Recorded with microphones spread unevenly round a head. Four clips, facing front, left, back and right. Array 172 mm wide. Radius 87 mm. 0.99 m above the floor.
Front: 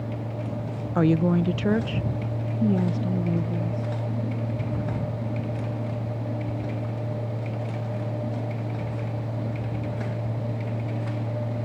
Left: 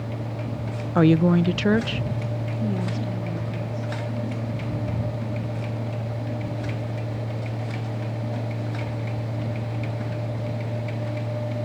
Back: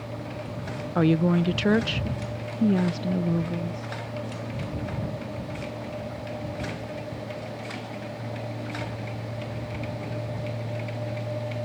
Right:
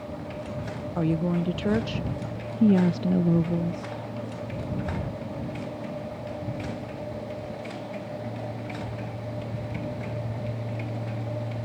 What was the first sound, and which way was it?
A woman speaking, 85° left.